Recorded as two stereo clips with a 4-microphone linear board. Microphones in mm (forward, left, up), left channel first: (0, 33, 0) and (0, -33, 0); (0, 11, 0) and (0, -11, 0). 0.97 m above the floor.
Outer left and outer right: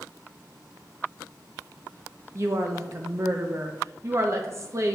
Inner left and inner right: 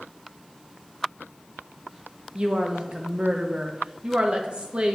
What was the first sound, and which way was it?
A woman speaking, 45° right (ahead or behind).